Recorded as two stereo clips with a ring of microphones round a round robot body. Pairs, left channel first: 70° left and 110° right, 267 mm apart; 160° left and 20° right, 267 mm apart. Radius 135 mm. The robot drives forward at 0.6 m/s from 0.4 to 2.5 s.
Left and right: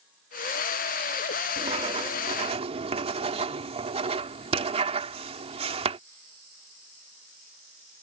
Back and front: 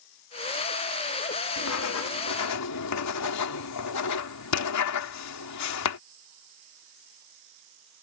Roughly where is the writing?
Behind.